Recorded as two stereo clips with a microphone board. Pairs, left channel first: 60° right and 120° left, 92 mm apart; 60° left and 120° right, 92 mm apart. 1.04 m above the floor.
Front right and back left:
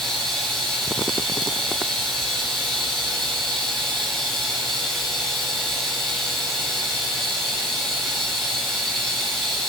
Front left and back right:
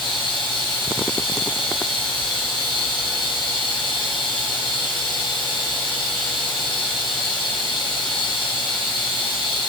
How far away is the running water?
About 3.5 m.